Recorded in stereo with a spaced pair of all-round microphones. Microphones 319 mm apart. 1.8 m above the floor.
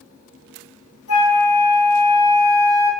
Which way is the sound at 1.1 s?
50° left (ahead or behind).